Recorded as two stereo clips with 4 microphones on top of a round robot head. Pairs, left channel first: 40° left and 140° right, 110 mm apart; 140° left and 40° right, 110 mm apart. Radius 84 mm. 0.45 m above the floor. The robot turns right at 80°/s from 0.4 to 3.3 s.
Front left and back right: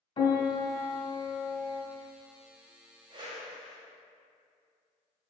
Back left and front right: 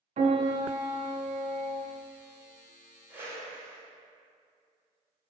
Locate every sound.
0.2 s a piano: 5° right, 1.5 m; by 1.8 s 105° left, 1.5 m
3.1 s a whoosh: 110° right, 1.7 m; by 3.8 s 95° right, 1.7 m